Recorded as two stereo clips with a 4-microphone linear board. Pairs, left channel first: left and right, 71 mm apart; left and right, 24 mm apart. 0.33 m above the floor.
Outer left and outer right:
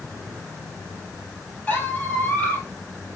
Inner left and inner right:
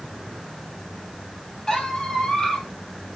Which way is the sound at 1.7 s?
25° left (ahead or behind).